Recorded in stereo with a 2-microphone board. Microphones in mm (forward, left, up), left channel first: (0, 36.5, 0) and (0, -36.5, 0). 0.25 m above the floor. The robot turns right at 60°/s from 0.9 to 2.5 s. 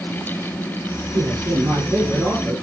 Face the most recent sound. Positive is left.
turn(degrees=-10)